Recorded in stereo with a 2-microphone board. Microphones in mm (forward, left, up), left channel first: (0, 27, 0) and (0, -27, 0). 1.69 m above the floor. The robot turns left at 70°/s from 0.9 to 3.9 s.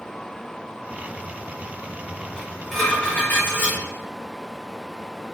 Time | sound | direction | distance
2.4 | dishes clattering | 155° right | 1.1 m